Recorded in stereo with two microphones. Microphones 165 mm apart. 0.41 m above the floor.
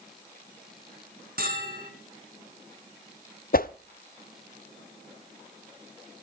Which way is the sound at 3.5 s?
60° left (ahead or behind).